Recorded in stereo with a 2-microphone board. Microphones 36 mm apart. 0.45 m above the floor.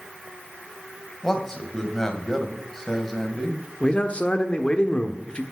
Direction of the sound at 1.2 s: 15° left (ahead or behind).